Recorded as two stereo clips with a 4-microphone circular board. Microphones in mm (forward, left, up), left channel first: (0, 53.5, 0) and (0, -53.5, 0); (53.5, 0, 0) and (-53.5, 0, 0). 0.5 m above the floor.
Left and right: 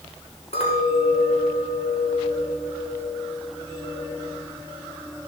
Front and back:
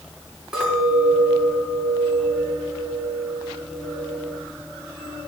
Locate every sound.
0.5 s a clink: 100° left, 4.5 m